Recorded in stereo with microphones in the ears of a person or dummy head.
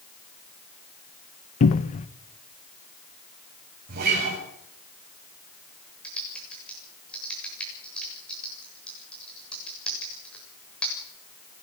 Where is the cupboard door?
40° left (ahead or behind), 0.9 m.